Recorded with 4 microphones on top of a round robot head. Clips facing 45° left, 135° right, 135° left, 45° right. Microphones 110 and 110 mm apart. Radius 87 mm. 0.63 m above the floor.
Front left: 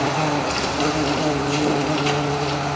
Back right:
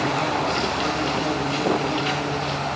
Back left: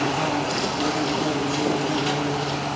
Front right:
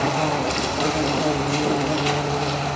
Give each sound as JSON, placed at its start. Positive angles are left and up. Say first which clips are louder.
{"t": 0.0, "sound": "an insect", "louder": "front left 2 dB, front right 2 dB", "azimuth_deg": -5, "distance_m": 1.2}